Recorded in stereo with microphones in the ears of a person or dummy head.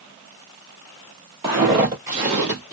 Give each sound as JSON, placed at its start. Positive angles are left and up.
{"t": 1.4, "sound": "footsteps", "side_deg": -15, "distance_m": 1.8}